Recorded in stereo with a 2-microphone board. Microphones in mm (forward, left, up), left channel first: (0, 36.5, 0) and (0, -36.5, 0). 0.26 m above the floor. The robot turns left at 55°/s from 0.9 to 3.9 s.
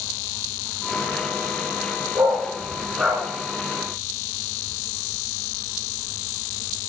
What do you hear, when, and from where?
2.1 s a dog barking: 55° right (ahead or behind), 1.4 m; by 3.2 s centre (ahead or behind), 1.4 m